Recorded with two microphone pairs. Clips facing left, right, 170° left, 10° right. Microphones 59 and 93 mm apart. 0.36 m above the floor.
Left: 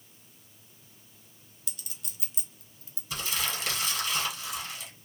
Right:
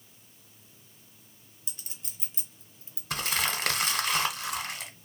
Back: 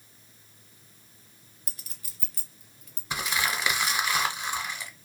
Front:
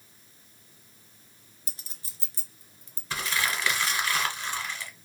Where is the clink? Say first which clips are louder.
Even, even; 45° right, 0.6 m.